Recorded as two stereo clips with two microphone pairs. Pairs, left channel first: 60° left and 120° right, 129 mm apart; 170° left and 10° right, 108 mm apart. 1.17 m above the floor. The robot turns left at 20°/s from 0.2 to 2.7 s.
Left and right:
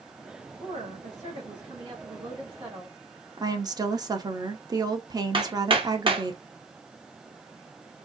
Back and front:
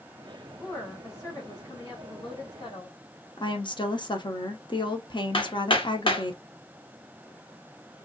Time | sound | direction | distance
0.6 | a woman speaking | 120° right | 2 m
3.4 | a woman speaking | 170° right | 0.9 m
5.3 | hammering | 165° right | 1.0 m